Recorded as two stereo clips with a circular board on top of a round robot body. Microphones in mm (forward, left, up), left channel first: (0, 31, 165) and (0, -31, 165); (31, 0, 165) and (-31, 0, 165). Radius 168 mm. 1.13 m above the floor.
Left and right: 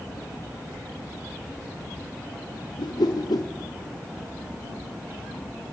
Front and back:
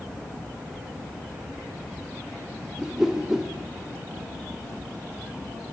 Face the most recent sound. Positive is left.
turn(degrees=95)